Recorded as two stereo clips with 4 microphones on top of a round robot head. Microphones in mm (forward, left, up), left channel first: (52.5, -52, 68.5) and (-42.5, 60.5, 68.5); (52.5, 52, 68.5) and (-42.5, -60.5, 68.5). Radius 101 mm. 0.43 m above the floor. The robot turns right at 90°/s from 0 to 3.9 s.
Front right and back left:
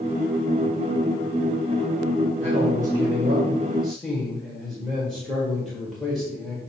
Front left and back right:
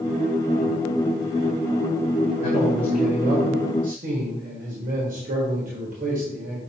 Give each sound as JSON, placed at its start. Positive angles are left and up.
{"t": 2.4, "sound": "a man speaking", "azimuth_deg": 90, "distance_m": 1.7}